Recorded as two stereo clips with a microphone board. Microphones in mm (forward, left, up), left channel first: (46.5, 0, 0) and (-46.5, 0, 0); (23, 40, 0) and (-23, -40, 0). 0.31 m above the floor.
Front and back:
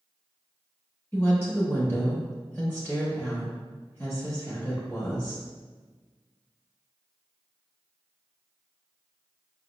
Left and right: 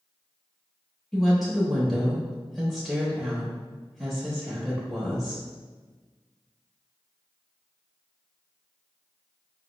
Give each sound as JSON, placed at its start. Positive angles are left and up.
{"t": 1.1, "sound": "a woman speaking", "azimuth_deg": -25, "distance_m": 0.8}